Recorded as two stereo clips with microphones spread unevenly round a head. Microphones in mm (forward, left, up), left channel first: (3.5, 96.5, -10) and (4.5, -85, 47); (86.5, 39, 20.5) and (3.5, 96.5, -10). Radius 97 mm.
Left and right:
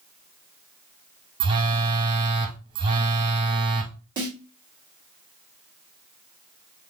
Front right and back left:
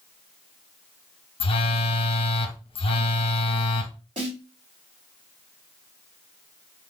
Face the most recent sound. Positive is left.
turn(degrees=-160)